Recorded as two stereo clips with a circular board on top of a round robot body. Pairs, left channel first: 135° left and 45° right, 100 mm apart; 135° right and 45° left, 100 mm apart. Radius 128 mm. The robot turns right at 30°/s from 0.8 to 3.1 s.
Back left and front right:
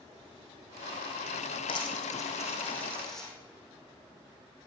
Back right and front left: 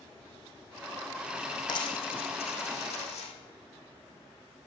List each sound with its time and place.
1.7 s a dropped coin: straight behind, 4 m; by 3.3 s 140° right, 4 m